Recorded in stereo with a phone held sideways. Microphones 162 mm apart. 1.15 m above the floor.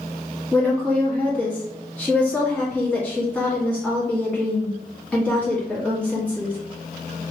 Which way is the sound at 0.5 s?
10° left (ahead or behind).